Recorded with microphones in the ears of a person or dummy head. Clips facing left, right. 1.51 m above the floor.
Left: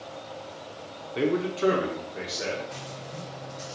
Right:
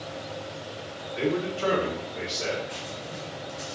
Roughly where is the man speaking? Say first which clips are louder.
Left 2 dB; left.